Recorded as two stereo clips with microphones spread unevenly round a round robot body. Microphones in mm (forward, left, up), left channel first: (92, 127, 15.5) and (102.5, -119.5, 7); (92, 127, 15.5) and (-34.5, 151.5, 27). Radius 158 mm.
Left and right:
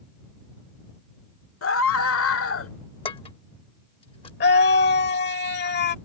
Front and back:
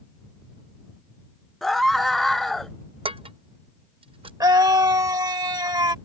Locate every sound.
1.6 s a scream: 75° left
3.0 s dishes clattering: 150° left
4.4 s a scream: 120° left